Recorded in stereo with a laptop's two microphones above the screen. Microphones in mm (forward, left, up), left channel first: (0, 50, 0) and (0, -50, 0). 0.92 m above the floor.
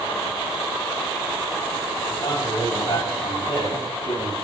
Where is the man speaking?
55° left (ahead or behind), 6.5 m; by 4.3 s 60° left (ahead or behind), 8 m.